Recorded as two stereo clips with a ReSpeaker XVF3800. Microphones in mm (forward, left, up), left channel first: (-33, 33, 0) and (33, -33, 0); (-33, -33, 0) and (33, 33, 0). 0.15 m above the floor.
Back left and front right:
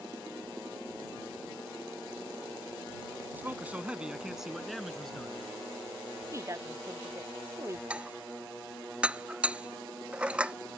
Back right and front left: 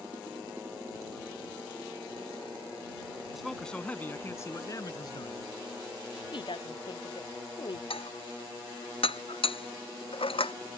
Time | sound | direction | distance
3.3 | a man speaking | 35° right | ?
6.3 | a woman speaking | 105° right | ?
7.9 | dishes clattering | 125° right | ?